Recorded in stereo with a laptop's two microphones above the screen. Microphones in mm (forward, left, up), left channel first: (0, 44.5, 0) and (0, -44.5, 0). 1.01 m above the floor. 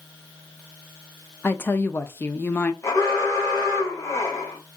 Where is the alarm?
35° left (ahead or behind), 1.5 m.